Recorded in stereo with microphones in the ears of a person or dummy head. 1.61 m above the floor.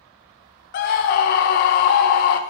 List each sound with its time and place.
0.7 s a scream: 60° left (ahead or behind), 0.6 m